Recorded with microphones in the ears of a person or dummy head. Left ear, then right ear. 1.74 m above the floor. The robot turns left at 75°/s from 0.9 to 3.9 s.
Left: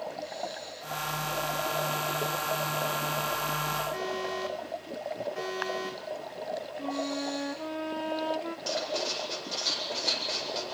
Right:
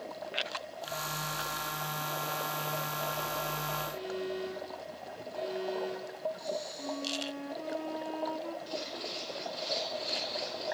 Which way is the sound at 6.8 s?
30° left (ahead or behind).